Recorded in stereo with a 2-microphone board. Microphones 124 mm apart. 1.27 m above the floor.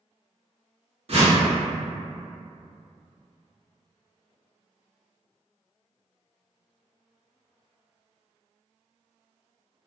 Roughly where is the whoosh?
Right.